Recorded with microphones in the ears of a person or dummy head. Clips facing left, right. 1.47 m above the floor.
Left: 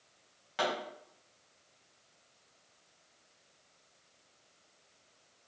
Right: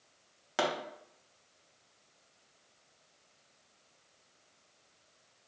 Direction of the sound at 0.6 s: 55° right (ahead or behind).